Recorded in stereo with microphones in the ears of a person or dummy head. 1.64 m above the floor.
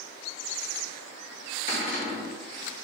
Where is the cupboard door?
45° left (ahead or behind), 1.1 m.